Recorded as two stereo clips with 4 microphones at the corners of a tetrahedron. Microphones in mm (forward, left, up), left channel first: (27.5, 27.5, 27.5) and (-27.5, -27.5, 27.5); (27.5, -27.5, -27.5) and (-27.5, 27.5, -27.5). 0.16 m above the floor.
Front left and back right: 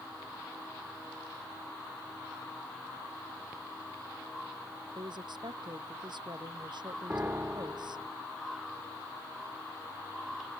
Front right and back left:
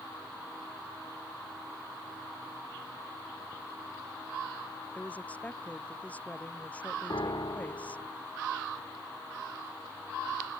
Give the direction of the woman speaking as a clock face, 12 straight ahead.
4 o'clock.